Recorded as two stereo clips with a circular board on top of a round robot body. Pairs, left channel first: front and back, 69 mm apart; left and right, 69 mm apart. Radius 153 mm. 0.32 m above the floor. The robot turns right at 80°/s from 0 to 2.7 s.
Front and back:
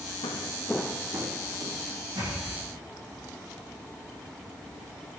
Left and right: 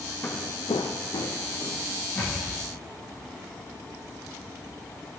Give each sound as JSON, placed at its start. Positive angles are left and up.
{"t": 0.2, "sound": "footsteps", "azimuth_deg": 20, "distance_m": 1.0}
{"t": 2.1, "sound": "a thud", "azimuth_deg": 160, "distance_m": 6.5}